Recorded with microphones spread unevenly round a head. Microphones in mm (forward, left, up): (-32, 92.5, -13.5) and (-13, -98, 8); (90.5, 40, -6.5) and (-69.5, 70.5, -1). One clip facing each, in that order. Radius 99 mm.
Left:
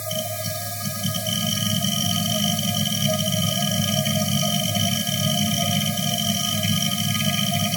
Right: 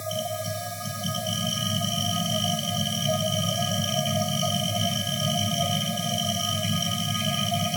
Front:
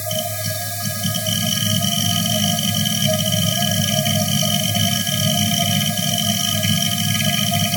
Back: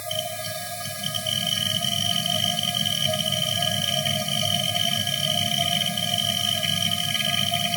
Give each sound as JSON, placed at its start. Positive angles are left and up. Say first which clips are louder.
{"t": 0.0, "sound": "a machine running", "louder": "left 1 dB, front 6 dB", "azimuth_deg": 30, "distance_m": 1.1}